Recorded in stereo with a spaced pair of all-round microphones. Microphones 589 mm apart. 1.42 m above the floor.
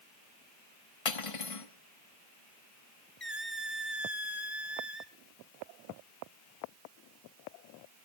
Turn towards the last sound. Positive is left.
turn(degrees=20)  # may be behind; listen again after turning